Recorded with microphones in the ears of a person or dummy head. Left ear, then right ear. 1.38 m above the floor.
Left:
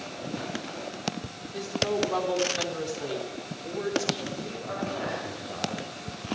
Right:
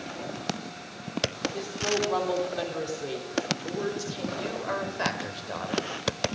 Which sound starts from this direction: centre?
A woman speaking, at 1.5 s.